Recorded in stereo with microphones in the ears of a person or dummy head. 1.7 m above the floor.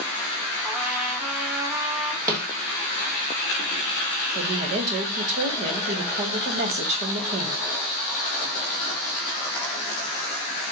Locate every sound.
0.6 s a trumpet: 10° right (ahead or behind), 0.8 m
2.3 s a snare drum: 20° right (ahead or behind), 1.2 m
4.3 s a woman speaking: 45° right (ahead or behind), 0.9 m